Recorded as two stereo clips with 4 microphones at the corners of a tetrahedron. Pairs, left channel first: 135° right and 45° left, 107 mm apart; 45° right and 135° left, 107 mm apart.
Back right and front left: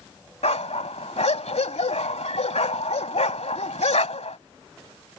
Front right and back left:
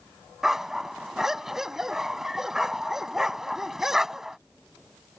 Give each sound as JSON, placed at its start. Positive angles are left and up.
{"t": 0.4, "sound": "a dog barking", "azimuth_deg": -140}